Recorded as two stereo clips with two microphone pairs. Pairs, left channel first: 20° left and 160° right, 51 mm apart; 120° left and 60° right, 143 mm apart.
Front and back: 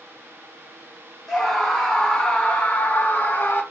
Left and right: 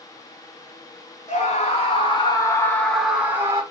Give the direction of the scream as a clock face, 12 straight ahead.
9 o'clock.